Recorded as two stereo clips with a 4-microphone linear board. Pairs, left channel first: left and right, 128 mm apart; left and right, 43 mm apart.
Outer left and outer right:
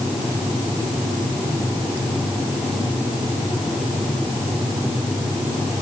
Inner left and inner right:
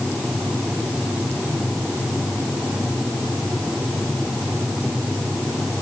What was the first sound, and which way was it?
Only background noise.